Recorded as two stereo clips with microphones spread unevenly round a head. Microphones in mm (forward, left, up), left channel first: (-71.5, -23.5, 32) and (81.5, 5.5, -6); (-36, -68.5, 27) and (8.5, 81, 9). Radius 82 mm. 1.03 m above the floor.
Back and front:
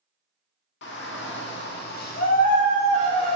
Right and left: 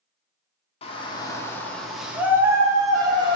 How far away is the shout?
About 1.4 m.